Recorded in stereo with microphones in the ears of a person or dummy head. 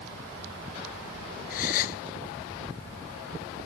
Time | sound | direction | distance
1.5 | a gasp | 50° left (ahead or behind) | ?